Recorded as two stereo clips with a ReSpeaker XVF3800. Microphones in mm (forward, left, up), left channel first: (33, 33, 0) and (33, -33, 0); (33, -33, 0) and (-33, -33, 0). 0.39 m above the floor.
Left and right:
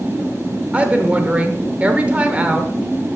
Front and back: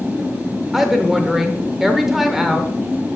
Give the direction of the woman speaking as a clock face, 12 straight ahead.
3 o'clock.